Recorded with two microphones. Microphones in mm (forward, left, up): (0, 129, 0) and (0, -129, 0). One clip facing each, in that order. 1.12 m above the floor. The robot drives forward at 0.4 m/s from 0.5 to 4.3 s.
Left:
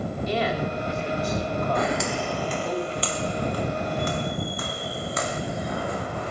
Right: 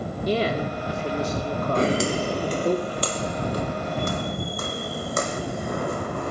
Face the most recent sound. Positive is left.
turn(degrees=-55)  # may be behind; listen again after turning